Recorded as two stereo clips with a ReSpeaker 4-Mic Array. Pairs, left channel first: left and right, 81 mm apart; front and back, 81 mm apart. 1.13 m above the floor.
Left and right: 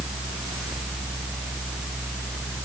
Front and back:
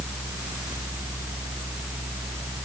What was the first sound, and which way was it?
Only background noise.